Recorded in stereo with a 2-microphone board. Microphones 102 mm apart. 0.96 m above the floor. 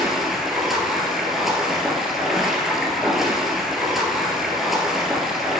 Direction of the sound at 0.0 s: 5° right (ahead or behind).